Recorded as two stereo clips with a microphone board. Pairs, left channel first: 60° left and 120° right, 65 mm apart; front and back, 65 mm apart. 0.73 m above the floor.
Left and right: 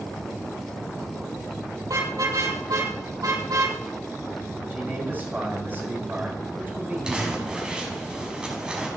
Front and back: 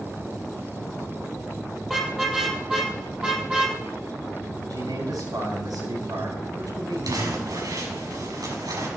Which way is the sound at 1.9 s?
95° right.